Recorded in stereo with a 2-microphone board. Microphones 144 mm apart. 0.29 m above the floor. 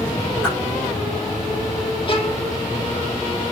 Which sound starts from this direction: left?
A violin, at 2.1 s.